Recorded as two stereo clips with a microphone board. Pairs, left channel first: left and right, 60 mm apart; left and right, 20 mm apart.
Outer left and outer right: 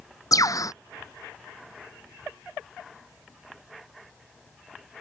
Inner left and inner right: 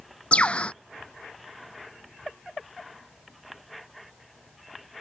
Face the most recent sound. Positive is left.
turn(degrees=70)  # may be behind; listen again after turning